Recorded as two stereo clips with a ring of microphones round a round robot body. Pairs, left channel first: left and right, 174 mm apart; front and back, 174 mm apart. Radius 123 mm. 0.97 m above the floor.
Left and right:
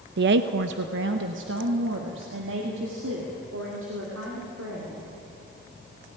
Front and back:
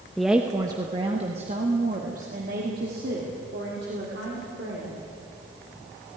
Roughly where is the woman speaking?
Right.